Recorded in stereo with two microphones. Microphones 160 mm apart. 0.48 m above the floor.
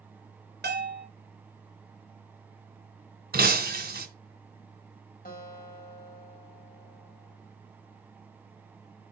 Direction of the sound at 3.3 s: 70° right (ahead or behind).